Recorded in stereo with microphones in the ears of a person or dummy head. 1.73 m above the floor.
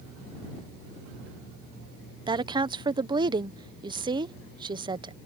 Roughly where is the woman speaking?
Right.